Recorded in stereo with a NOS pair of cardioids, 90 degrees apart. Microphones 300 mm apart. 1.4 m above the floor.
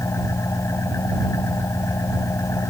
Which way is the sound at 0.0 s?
10° left.